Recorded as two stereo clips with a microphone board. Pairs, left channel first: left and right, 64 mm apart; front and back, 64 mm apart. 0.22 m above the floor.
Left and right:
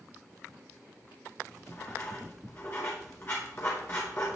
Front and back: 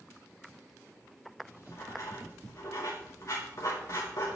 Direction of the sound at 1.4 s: 35° left.